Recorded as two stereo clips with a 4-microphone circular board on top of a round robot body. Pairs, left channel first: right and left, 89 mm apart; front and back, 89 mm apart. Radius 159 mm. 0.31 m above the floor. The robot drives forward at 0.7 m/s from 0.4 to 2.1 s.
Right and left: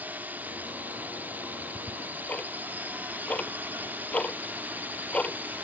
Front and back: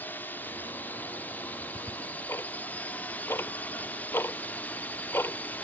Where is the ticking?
10° right; by 5.6 s 30° right.